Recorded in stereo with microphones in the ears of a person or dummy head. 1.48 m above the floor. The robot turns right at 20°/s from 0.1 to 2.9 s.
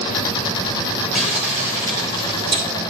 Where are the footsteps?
No footsteps in this recording.